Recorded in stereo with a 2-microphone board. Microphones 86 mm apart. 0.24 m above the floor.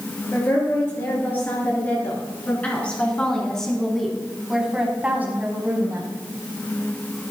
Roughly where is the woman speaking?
Left.